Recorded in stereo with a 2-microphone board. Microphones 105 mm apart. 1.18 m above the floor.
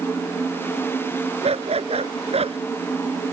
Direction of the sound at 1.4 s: 70° right (ahead or behind).